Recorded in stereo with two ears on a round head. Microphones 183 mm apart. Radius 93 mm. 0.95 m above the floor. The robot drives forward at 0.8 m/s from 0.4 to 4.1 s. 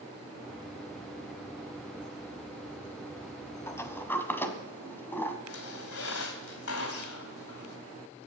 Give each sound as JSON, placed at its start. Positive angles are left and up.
{"t": 3.7, "sound": "a sliding door", "side_deg": 15, "distance_m": 1.2}
{"t": 5.5, "sound": "a squeak", "side_deg": 80, "distance_m": 2.5}